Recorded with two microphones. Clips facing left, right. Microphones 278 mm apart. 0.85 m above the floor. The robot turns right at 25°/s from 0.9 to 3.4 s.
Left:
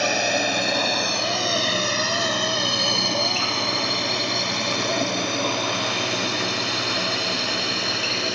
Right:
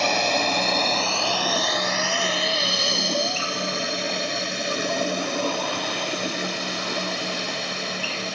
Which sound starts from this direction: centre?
A drone, at 0.0 s.